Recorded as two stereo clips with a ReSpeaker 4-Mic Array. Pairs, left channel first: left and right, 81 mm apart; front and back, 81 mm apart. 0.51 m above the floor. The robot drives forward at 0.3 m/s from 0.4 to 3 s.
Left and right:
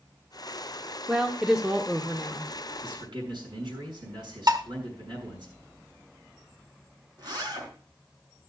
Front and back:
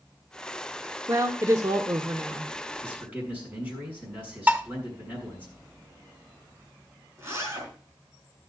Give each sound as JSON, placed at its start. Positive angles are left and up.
{"t": 1.1, "sound": "a woman speaking", "azimuth_deg": -165, "distance_m": 0.8}
{"t": 2.8, "sound": "a man speaking", "azimuth_deg": -110, "distance_m": 5.5}
{"t": 4.5, "sound": "dishes clattering", "azimuth_deg": -115, "distance_m": 0.9}
{"t": 7.2, "sound": "a zipper", "azimuth_deg": -125, "distance_m": 4.0}